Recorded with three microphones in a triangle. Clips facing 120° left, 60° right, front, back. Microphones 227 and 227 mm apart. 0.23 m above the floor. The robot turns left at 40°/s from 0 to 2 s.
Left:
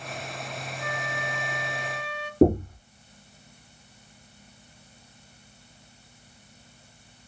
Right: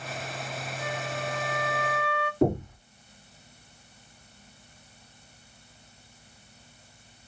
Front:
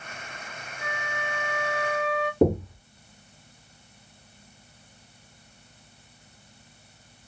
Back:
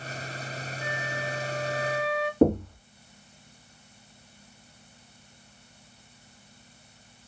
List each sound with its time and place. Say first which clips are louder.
0.8 s a flute: right 2 dB, even; 10° left, 1.1 m; by 2.3 s 35° right, 1.1 m
2.4 s knocking: left 6 dB, back 1 dB; 75° left, 1.8 m